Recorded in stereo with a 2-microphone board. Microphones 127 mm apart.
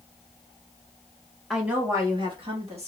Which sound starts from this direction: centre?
A woman speaking, at 1.5 s.